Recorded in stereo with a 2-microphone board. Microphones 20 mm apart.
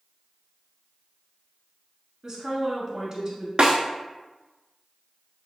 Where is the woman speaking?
30° right (ahead or behind), 1.2 m.